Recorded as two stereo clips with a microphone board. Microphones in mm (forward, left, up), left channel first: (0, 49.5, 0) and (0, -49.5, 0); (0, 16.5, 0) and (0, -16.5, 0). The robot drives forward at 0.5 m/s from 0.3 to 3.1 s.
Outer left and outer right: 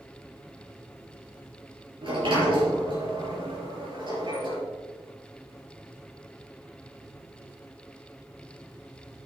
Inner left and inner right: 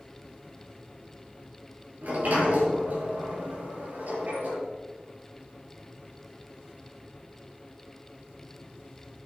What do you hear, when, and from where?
2.0 s a sliding door: 55° right (ahead or behind), 4.5 m; by 4.6 s 50° right (ahead or behind), 5 m